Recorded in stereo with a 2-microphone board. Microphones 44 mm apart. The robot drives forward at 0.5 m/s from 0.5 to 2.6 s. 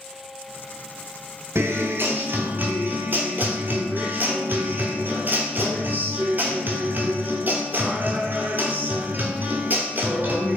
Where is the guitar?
75° right (ahead or behind), 0.6 m; by 10.6 s 40° right (ahead or behind), 0.9 m.